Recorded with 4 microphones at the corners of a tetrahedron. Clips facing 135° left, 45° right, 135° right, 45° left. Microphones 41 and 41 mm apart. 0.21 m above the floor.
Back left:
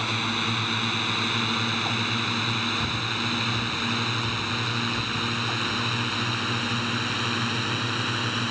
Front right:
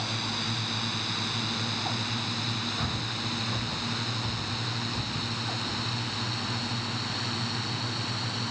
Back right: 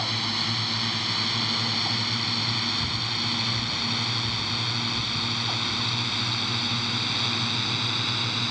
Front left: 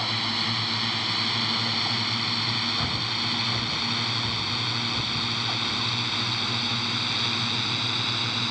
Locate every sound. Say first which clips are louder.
0.0 s a drone: back left 6 dB, front left 1 dB; 125° left; by 8.5 s 135° left
2.8 s breathing: back left 5 dB, front left 1 dB; 35° left